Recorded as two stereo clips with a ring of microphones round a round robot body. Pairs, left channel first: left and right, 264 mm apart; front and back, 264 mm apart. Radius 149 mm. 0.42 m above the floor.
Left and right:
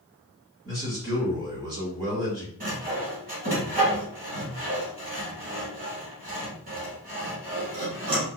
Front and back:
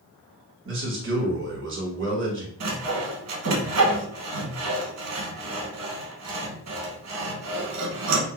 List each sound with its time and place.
0.7 s a man speaking: 160° right, 1.5 m
2.6 s sawing: 155° right, 1.0 m